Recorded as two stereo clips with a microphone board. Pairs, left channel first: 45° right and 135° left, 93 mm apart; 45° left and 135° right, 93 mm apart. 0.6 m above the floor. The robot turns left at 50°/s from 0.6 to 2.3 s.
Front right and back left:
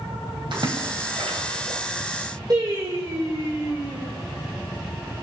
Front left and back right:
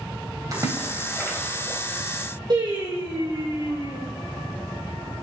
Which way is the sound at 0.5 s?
170° left.